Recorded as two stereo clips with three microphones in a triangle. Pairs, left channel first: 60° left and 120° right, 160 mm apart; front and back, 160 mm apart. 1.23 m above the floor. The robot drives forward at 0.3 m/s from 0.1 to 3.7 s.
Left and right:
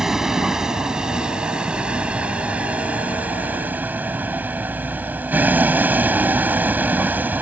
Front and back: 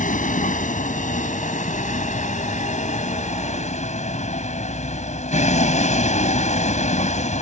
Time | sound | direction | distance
0.0 | a vehicle | 35° right | ?